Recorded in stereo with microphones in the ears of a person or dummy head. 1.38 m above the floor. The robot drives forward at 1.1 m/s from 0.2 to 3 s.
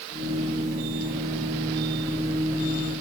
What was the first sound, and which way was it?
Only background noise.